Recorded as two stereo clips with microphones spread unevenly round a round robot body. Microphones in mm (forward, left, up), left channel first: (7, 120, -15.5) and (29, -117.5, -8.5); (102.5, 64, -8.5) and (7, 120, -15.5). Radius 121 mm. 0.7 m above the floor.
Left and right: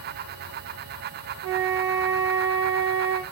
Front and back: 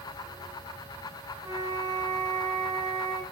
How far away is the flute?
About 0.8 m.